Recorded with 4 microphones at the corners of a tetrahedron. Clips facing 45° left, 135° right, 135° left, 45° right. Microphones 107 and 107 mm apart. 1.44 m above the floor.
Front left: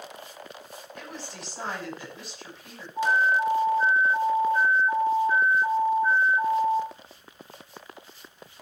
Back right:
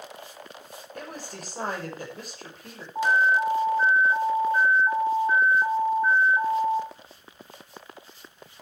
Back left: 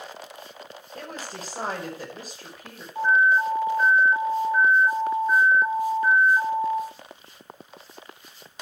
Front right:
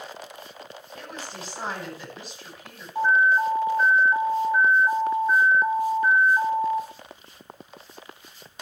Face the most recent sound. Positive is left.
turn(degrees=-110)